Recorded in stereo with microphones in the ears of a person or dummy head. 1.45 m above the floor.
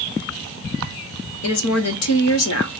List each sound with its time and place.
1.4 s a woman speaking: 80° left, 1.1 m